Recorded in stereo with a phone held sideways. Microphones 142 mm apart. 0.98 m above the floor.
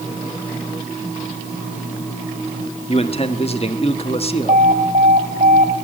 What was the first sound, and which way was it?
A man speaking, 45° left (ahead or behind).